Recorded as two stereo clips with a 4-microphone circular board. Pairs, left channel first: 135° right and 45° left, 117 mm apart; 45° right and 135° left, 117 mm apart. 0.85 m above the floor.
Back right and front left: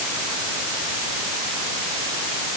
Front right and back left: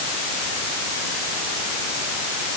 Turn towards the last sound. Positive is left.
No sound to turn to.